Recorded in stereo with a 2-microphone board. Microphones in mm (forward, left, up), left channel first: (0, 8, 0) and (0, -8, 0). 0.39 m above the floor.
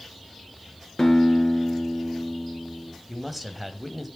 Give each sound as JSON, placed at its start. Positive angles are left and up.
{"t": 1.0, "sound": "a guitar", "side_deg": 30, "distance_m": 4.0}
{"t": 3.1, "sound": "a man speaking", "side_deg": -10, "distance_m": 1.7}